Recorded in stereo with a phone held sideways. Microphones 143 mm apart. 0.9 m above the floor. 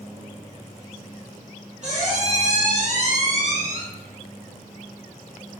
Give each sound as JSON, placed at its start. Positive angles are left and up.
{"t": 1.8, "sound": "a squeak", "side_deg": -60, "distance_m": 1.6}